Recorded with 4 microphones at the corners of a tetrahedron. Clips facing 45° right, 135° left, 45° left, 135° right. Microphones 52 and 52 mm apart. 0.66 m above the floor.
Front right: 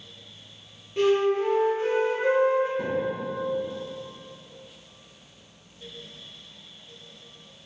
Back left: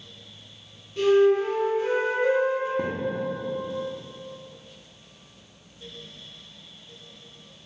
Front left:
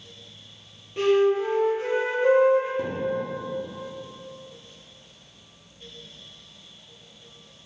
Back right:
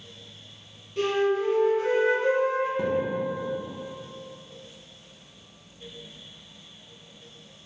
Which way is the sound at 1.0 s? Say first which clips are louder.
Back left 3 dB, front left 4 dB; 10° right.